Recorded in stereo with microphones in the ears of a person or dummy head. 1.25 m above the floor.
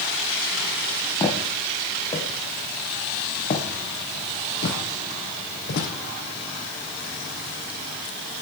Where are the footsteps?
20° left (ahead or behind), 3.5 m; by 5.9 s 60° left (ahead or behind), 2.5 m.